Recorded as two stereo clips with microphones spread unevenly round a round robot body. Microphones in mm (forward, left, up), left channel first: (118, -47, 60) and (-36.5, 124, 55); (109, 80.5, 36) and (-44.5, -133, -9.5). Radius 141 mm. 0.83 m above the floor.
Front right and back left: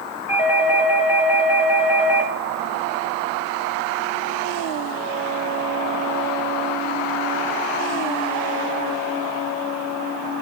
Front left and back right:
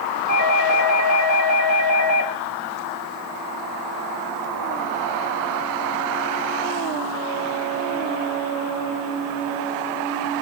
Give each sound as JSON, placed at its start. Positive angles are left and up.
{"t": 0.3, "sound": "a doorbell", "azimuth_deg": -110, "distance_m": 4.0}